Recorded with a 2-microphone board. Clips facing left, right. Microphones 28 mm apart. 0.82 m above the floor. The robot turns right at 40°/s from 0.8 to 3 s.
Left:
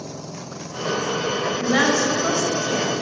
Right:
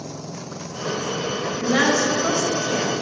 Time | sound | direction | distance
1.6 | a woman speaking | 30° left (ahead or behind) | 0.8 m